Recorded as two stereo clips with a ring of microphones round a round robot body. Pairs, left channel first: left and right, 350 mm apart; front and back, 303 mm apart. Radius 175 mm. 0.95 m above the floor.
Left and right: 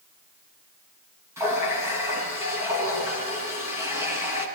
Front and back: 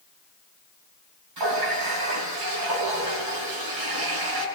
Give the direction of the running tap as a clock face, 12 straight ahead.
6 o'clock.